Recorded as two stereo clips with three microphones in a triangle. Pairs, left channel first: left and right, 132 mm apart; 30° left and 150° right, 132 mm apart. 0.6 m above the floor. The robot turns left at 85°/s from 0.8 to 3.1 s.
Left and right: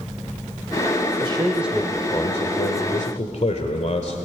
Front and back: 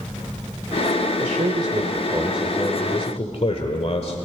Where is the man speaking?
135° right, 1.7 m; by 4.2 s 65° left, 1.7 m.